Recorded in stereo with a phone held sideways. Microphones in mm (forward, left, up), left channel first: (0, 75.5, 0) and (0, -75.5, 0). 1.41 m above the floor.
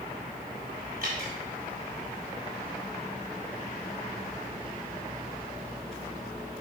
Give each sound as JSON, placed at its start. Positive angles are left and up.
{"t": 1.0, "sound": "dripping", "side_deg": -70, "distance_m": 3.5}